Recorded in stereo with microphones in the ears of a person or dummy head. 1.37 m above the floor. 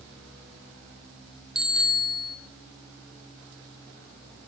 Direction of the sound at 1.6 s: 5° right (ahead or behind).